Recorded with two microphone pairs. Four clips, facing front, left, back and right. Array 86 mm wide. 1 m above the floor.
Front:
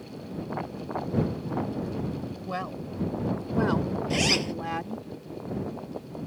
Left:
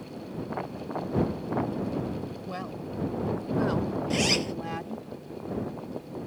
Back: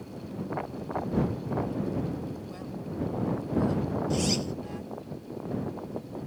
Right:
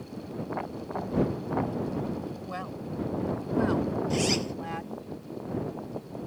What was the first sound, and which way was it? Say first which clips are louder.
A woman speaking: even, front 5 dB; 20° right.